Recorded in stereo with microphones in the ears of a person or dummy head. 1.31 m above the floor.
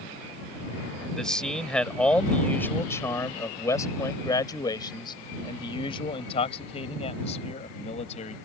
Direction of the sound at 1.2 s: 5° left (ahead or behind).